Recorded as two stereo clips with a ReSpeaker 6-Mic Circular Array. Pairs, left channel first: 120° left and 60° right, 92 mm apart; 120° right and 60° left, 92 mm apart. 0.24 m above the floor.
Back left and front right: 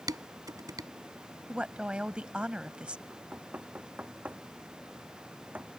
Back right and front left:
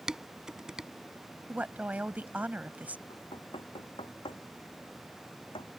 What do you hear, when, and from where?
0.1 s dishes clattering: 20° right
1.5 s a woman speaking: 5° left
3.1 s knocking: 135° right